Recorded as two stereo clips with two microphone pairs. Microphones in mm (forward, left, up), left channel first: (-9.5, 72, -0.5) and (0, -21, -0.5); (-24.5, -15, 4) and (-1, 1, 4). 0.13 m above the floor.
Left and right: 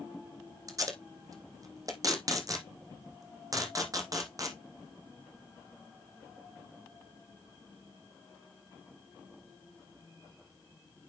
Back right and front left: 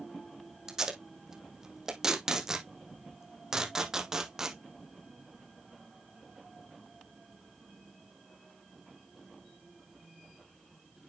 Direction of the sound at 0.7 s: 35° right.